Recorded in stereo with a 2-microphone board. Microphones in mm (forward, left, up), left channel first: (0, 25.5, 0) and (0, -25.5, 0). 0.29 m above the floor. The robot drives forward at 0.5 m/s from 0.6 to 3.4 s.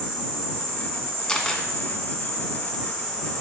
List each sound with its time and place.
0.0 s an insect: centre (ahead or behind), 4.5 m; by 3.4 s 5° left (ahead or behind), 3 m
1.3 s a camera shutter: 20° left (ahead or behind), 1.2 m; by 1.6 s 15° left (ahead or behind), 1.3 m